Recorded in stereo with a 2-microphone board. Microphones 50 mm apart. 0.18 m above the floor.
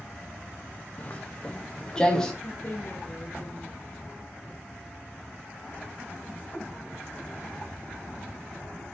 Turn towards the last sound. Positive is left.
turn(degrees=40)  # may be behind; listen again after turning